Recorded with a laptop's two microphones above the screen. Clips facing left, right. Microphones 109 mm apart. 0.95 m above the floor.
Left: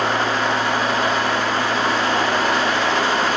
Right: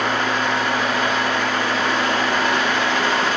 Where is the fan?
35° left (ahead or behind), 1.2 m.